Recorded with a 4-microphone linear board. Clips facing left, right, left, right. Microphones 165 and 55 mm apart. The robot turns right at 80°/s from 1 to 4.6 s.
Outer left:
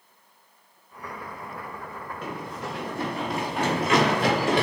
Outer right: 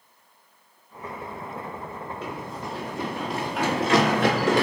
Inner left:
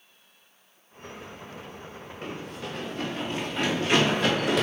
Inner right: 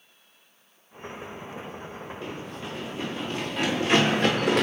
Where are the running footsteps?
55° left (ahead or behind), 3 m; by 4.6 s 85° right, 3.5 m.